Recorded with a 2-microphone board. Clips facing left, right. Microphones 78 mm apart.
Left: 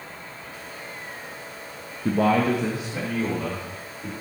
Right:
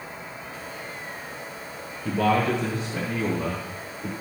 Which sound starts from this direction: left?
A man speaking, at 2.0 s.